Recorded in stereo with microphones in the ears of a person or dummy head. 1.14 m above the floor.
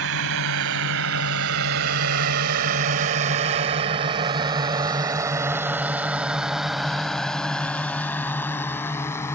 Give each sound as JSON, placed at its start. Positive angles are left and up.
{"t": 0.0, "sound": "a drone", "side_deg": -80}